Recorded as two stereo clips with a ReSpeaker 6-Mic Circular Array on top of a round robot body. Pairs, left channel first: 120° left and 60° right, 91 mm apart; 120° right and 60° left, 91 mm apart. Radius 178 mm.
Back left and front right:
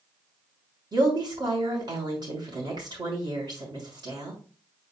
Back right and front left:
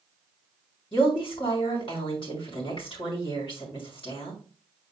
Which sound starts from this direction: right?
A woman speaking, at 0.9 s.